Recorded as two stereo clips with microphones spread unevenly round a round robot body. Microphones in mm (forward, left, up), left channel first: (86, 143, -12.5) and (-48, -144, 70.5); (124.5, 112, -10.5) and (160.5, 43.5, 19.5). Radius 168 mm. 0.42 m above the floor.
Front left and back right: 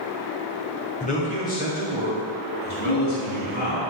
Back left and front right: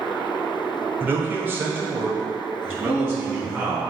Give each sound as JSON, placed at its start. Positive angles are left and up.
{"t": 1.0, "sound": "a man speaking", "azimuth_deg": 20, "distance_m": 1.2}
{"t": 2.9, "sound": "a ringtone", "azimuth_deg": -145, "distance_m": 2.5}